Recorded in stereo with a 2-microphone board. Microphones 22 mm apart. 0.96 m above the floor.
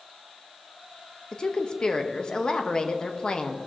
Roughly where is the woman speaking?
Left.